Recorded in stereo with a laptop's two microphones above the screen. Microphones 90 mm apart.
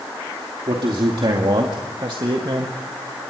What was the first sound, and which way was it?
A man speaking, 70° right (ahead or behind).